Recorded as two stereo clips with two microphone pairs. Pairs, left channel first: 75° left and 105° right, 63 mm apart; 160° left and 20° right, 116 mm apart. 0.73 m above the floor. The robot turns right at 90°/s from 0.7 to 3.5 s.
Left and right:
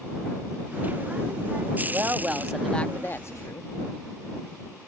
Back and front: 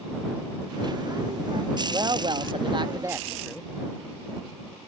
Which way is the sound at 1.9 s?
70° right.